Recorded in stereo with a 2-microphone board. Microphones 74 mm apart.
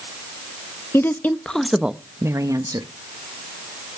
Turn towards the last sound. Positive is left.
turn(degrees=-60)  # may be behind; listen again after turning